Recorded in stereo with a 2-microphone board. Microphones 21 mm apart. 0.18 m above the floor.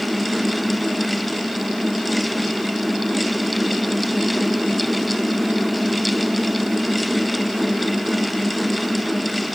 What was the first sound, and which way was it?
Only background noise.